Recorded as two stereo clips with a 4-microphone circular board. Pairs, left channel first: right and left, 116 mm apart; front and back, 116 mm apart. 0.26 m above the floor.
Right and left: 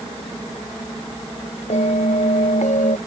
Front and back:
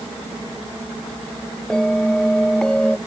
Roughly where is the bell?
Right.